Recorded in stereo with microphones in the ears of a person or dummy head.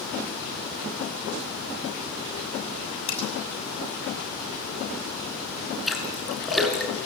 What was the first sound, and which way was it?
Cutlery clinking, 25° left (ahead or behind).